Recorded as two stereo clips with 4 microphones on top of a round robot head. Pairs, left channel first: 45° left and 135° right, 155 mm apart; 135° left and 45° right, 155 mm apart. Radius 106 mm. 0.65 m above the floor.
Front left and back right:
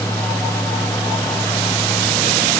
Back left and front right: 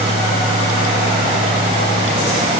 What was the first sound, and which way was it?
Only background noise.